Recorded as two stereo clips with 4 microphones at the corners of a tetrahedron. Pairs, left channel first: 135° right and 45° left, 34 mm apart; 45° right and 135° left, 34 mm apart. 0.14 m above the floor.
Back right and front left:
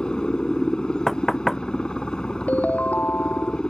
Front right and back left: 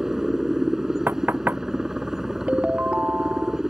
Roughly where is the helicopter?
Behind.